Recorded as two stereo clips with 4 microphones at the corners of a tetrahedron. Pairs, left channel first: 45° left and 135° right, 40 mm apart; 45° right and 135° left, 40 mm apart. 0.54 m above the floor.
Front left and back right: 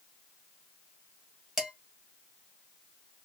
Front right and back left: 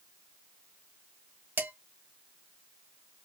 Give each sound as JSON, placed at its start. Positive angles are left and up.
{"t": 1.6, "sound": "dishes clattering", "azimuth_deg": 145, "distance_m": 1.7}